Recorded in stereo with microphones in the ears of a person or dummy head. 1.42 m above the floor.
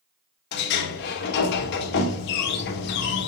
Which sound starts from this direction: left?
A sliding door, at 0.5 s.